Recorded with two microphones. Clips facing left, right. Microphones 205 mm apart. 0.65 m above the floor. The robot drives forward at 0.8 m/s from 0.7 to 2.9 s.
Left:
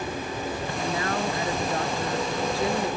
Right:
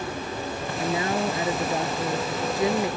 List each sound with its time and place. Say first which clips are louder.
0.8 s a man speaking: right 4 dB; 20° right (ahead or behind)